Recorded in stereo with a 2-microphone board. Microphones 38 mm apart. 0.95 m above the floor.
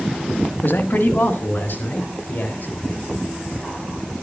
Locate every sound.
0.6 s a man speaking: 55° left (ahead or behind), 1.4 m; by 2.7 s 50° left (ahead or behind), 4 m